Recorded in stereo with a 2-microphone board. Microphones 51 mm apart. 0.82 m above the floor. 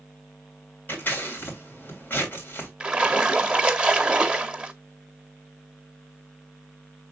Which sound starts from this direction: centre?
A splash, at 2.8 s.